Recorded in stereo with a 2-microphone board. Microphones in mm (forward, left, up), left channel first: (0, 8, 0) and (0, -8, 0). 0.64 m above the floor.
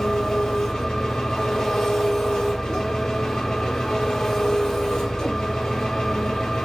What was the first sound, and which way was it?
An engine running, 60° left (ahead or behind).